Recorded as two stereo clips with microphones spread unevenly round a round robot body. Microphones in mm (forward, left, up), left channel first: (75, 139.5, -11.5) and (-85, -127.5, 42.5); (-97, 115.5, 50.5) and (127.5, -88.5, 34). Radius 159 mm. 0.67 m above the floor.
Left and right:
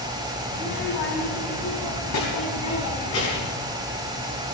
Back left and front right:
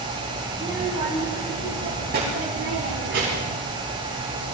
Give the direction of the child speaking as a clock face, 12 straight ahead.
11 o'clock.